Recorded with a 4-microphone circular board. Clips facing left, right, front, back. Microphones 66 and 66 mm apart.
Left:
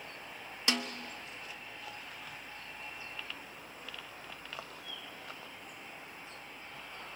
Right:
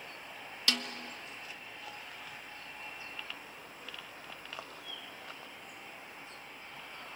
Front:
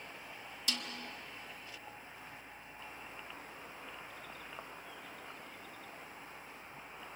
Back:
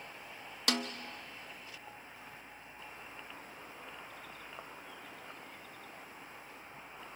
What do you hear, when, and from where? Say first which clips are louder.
0.7 s a snare drum: left 2 dB, back 7 dB; 155° left, 1.1 m